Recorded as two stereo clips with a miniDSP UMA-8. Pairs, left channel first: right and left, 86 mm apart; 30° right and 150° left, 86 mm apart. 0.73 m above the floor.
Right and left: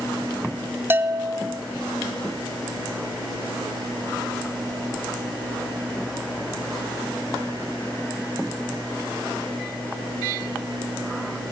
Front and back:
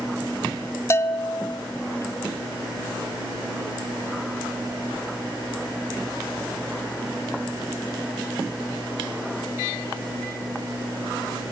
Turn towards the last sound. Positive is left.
turn(degrees=30)